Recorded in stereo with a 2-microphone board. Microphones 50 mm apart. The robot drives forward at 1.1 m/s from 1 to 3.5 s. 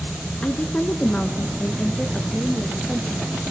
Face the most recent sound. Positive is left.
turn(degrees=10)  # may be behind; listen again after turning